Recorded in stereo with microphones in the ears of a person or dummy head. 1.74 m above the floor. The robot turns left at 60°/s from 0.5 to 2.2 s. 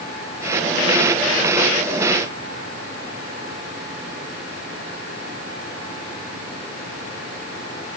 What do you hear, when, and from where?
Only background noise.